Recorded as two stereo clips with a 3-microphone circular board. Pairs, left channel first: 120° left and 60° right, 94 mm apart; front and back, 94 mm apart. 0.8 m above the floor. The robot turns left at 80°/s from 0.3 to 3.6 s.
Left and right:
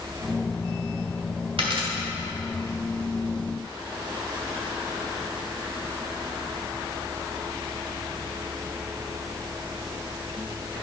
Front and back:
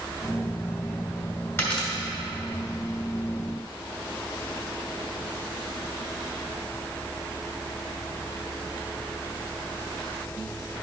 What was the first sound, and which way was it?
A dropped coin, 65° right.